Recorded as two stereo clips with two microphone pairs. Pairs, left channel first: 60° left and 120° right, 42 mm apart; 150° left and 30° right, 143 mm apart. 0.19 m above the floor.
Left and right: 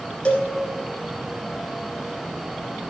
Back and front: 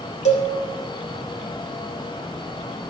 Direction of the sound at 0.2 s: 120° left.